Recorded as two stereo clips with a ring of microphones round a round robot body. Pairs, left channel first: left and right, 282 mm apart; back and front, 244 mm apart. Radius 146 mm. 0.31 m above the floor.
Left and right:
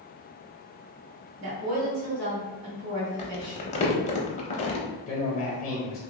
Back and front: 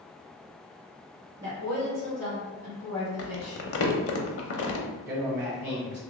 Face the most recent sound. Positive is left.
turn(degrees=65)